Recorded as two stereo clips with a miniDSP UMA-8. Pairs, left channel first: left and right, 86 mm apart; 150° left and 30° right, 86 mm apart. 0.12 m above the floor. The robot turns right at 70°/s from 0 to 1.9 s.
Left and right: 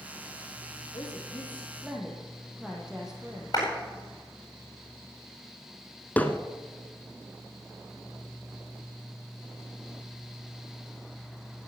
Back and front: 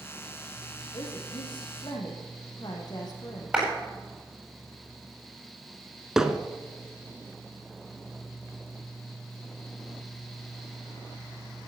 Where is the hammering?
45° left, 1.1 m.